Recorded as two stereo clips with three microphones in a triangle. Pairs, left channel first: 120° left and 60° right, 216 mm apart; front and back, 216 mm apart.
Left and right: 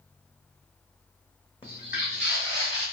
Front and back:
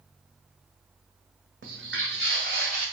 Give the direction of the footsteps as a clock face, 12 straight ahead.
6 o'clock.